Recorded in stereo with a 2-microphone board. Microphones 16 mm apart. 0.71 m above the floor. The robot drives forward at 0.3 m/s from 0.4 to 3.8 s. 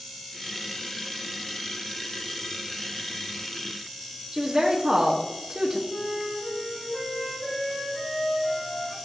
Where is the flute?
25° left (ahead or behind), 3 m.